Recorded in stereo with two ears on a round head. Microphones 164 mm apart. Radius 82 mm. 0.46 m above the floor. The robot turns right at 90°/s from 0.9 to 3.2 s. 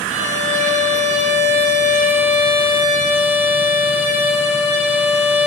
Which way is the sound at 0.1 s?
105° right.